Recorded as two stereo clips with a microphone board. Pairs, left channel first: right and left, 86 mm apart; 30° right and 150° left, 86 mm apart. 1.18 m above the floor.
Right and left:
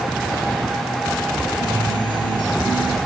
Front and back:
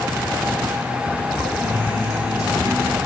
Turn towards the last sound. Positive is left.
turn(degrees=-70)